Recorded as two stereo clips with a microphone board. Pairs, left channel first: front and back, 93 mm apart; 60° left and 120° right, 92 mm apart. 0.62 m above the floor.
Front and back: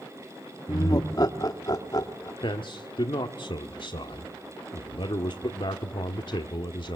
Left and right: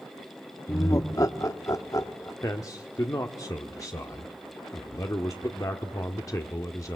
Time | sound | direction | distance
0.7 | laughter | 25° left | 1.5 m
2.4 | a man speaking | 10° left | 1.1 m